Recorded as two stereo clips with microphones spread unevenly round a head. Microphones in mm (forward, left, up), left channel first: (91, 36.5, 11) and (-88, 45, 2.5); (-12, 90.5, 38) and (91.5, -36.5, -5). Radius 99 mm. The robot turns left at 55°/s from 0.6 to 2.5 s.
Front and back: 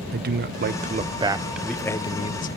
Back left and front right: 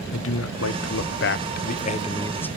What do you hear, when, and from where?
0.1 s a man speaking: 145° left, 0.6 m; by 2.5 s 40° left, 0.6 m